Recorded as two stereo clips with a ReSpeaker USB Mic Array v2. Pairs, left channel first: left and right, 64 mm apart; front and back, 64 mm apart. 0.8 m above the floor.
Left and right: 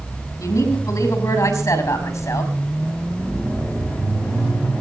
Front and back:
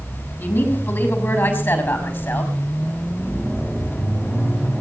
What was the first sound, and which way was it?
A woman speaking, 65° left.